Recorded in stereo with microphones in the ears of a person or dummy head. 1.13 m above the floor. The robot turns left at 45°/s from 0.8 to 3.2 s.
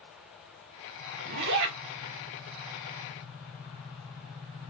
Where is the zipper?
50° right (ahead or behind), 1.0 m; by 1.8 s 70° right (ahead or behind), 1.0 m.